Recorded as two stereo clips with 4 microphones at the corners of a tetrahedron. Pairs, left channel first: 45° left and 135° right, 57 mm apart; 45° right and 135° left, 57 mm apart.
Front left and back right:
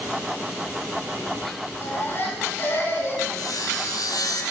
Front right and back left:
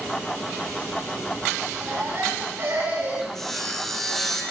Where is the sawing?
40° left, 5 m.